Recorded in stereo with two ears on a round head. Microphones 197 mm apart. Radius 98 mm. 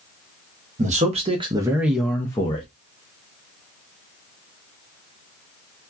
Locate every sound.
0.8 s a man speaking: 35° right (ahead or behind), 0.9 m; by 2.7 s 25° left (ahead or behind), 0.7 m